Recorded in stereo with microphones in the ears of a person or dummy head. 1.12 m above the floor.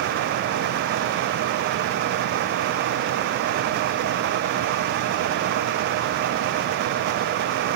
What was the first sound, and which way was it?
Only background noise.